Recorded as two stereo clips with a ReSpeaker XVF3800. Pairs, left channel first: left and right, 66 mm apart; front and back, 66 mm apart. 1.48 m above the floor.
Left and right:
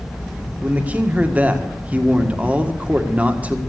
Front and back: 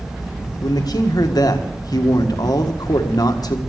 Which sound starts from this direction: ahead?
A man speaking, at 0.6 s.